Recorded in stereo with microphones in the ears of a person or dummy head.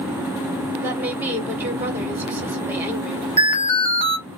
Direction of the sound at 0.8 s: 10° right (ahead or behind).